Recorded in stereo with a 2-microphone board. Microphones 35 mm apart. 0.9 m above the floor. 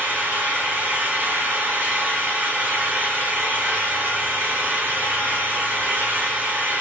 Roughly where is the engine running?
Right.